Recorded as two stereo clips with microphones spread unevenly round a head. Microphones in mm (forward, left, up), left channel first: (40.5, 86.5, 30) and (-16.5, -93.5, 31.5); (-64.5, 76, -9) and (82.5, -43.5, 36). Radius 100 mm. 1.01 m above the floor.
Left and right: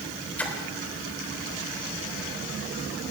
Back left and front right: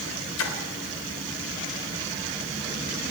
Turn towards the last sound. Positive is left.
turn(degrees=155)